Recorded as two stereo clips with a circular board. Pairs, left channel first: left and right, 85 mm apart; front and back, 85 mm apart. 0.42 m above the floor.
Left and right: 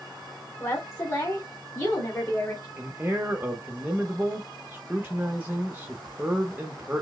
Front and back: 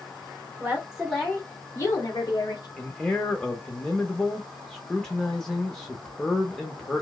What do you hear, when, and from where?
0.6 s a woman speaking: 135° left, 1.1 m; by 2.7 s 25° left, 1.8 m
2.8 s a man speaking: 70° right, 0.8 m